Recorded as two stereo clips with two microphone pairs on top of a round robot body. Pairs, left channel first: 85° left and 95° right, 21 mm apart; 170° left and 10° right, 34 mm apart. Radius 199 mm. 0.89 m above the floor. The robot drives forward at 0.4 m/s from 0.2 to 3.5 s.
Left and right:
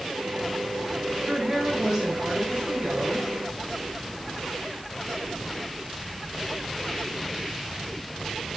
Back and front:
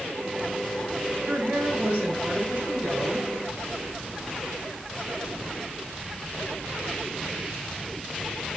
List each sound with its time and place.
1.3 s a woman speaking: 65° right, 7.5 m; by 3.3 s 70° right, 7 m